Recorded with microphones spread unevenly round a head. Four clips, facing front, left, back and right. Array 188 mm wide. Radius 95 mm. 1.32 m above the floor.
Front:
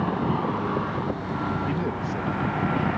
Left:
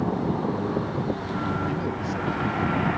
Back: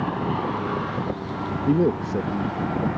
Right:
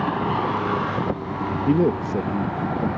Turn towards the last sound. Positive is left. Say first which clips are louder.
# right 8 dB, back 7 dB
turn(degrees=-135)